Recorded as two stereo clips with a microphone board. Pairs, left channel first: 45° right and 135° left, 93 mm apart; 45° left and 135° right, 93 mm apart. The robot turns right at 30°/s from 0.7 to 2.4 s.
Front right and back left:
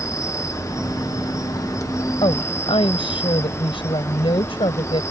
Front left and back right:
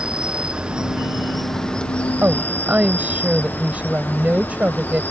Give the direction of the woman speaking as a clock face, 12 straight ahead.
2 o'clock.